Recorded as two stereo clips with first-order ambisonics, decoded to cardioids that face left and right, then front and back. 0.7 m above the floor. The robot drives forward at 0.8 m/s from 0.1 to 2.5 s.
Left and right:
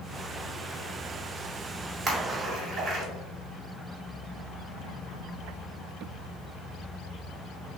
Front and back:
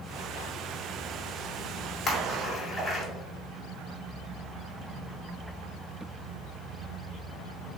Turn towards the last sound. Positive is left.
turn(degrees=-105)